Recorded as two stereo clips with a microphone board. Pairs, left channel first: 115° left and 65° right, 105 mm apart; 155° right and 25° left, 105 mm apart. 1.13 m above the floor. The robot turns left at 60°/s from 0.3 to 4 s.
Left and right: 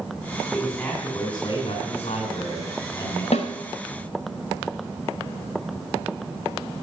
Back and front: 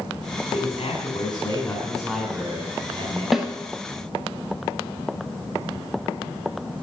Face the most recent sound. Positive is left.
turn(degrees=70)